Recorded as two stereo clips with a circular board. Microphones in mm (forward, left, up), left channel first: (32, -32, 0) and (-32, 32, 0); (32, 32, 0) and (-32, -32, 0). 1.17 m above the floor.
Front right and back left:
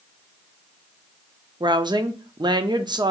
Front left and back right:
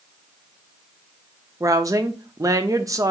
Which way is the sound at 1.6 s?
175° left.